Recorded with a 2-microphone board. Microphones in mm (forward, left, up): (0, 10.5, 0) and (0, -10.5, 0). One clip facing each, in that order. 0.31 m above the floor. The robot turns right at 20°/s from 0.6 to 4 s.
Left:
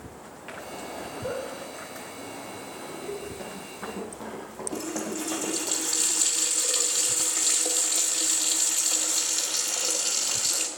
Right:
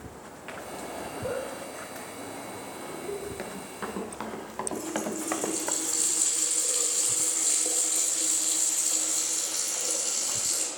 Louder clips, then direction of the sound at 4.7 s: Left 1 dB; 60° left (ahead or behind).